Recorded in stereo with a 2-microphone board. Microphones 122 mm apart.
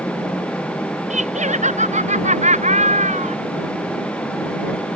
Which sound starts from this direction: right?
Laughter, at 1.1 s.